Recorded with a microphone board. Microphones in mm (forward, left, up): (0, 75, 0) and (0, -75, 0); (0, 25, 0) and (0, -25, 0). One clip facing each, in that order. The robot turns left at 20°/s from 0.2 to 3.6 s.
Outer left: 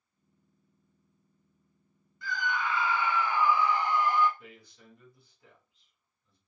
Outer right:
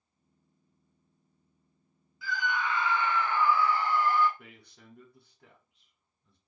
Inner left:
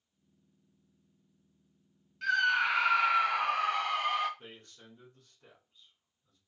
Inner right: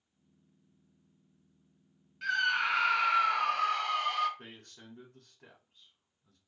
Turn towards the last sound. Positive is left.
turn(degrees=-65)  # may be behind; listen again after turning